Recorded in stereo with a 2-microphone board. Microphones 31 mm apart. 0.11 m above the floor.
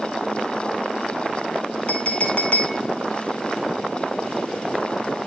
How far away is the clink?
About 1.6 m.